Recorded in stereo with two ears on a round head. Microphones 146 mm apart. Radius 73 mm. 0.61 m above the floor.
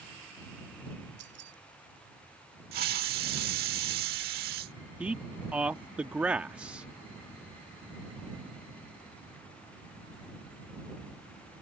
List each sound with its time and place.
1.2 s keys jangling: 75° right (ahead or behind)
2.7 s a hiss: 65° right (ahead or behind)
5.0 s a man speaking: 10° right (ahead or behind)